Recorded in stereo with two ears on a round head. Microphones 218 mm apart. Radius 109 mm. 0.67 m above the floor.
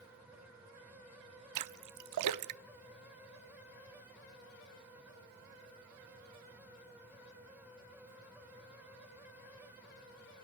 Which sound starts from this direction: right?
A splash, at 1.6 s.